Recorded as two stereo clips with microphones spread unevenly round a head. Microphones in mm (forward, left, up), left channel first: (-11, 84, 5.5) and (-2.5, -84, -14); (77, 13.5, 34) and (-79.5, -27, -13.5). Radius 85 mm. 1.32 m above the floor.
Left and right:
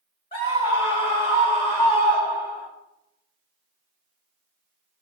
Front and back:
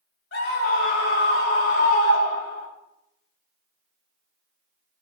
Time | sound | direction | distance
0.3 | a scream | 30° left | 7.5 m